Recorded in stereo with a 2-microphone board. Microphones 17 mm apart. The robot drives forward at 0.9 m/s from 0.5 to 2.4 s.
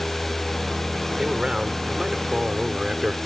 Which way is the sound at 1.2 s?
50° right (ahead or behind).